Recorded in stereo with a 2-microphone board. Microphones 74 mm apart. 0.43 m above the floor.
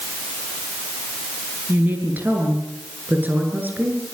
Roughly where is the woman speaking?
Right.